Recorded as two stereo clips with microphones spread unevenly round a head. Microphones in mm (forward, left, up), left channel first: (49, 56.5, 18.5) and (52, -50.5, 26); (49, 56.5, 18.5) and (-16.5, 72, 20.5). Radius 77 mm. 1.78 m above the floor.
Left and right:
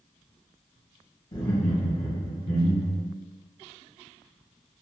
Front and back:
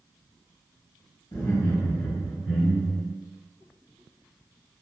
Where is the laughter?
40° left, 1.6 m; by 3.0 s 105° left, 1.5 m.